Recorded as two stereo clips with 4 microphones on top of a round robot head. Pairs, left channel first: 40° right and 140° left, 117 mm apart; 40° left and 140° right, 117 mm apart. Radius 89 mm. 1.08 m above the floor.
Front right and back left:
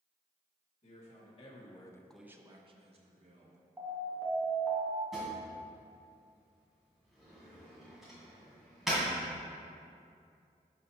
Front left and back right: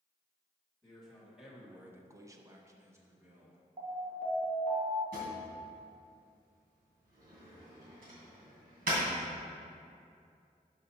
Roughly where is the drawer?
Behind right.